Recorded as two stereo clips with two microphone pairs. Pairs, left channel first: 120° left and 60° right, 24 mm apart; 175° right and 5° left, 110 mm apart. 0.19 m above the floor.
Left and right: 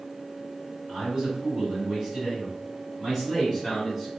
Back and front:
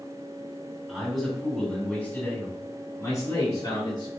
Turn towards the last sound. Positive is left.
turn(degrees=-145)